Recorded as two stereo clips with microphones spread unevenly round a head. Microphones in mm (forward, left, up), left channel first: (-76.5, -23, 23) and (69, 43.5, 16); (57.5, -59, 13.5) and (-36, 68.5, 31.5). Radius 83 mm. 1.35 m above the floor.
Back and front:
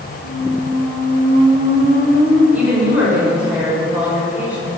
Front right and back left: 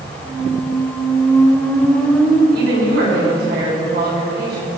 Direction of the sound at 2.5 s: 105° left.